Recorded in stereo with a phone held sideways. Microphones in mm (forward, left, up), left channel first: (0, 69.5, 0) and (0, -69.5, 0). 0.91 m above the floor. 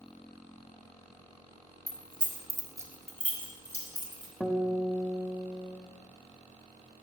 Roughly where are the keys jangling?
Right.